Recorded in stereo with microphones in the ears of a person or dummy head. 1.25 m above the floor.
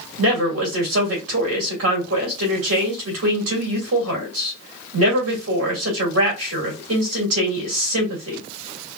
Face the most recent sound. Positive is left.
turn(degrees=-85)